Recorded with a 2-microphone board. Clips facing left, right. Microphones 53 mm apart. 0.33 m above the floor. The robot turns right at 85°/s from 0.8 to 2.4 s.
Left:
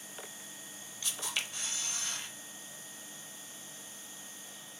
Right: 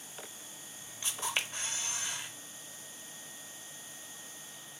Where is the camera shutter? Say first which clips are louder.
Right 3 dB; 120° right, 0.7 m; by 2.3 s 15° right, 0.7 m.